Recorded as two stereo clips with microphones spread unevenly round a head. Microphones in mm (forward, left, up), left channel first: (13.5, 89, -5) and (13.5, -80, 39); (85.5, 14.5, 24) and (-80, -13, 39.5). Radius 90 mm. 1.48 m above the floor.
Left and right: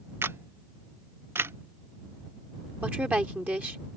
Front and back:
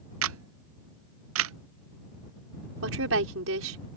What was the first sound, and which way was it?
A camera shutter, 165° right.